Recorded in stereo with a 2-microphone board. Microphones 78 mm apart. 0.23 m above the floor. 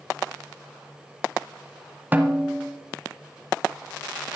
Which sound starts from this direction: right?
A snare drum, at 2.1 s.